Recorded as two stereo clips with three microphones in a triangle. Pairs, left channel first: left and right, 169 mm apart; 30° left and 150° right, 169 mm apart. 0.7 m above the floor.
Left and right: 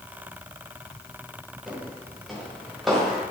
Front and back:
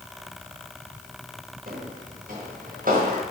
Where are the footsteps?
Straight behind, 7 m.